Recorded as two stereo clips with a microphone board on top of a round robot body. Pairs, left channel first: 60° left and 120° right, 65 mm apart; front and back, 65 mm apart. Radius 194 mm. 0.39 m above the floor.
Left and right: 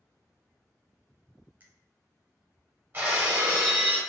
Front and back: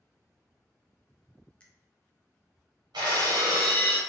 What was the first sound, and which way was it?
A finger snap, 70° right.